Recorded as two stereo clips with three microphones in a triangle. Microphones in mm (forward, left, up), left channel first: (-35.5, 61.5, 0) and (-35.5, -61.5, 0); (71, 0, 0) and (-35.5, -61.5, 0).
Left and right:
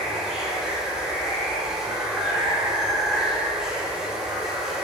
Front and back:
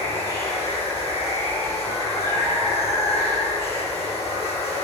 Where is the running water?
5° right, 3 m.